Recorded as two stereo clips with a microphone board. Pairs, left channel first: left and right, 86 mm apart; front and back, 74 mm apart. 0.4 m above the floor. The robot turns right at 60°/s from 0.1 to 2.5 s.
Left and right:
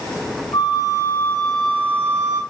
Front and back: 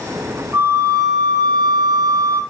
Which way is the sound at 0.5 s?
115° left.